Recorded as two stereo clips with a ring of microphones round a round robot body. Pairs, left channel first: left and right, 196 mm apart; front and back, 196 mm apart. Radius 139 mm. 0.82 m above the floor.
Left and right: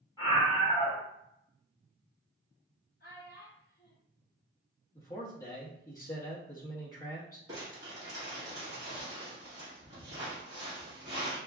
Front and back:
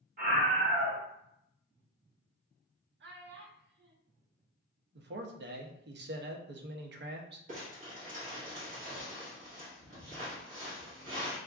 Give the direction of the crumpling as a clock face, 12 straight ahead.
5 o'clock.